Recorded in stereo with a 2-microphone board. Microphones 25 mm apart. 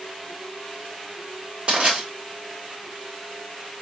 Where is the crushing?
40° right (ahead or behind), 2.5 m.